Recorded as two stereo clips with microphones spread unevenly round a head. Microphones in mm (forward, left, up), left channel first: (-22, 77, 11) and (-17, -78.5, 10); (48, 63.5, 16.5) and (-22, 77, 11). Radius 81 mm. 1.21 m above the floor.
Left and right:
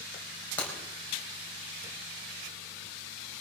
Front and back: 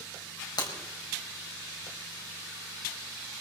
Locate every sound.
0.6 s breaking glass: 10° left, 4 m